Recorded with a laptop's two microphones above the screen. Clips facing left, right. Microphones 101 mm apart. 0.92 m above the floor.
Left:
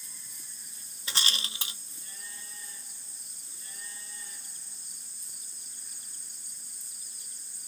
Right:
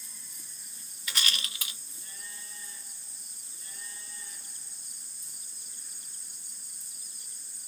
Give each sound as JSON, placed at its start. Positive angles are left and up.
{"t": 1.1, "sound": "a rattle", "side_deg": 30, "distance_m": 0.7}